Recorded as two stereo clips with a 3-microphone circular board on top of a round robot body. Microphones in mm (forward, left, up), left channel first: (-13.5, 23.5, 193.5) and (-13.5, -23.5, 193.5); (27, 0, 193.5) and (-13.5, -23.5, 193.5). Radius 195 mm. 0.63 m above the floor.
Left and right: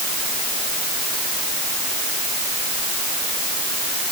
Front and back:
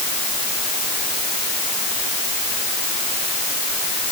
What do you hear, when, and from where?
Only background noise.